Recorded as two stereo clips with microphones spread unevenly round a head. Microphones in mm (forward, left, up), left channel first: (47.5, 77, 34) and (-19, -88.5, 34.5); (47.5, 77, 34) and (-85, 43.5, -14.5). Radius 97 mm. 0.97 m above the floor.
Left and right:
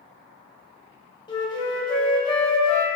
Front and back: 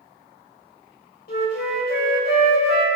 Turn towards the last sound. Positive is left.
turn(degrees=0)